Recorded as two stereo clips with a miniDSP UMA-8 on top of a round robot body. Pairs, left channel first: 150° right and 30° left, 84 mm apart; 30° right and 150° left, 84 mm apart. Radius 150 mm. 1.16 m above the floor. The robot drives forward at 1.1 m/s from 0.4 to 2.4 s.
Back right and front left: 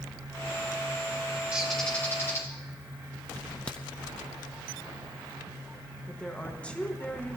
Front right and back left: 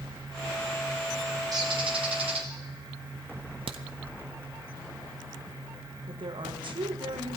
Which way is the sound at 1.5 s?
105° left.